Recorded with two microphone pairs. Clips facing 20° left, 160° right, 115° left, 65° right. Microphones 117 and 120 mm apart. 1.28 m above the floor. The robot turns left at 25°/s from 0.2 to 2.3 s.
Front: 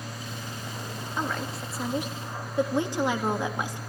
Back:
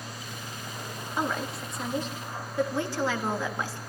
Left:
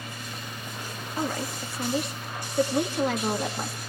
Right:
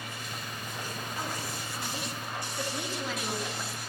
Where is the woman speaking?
120° left, 3 m; by 3.8 s 90° left, 3 m.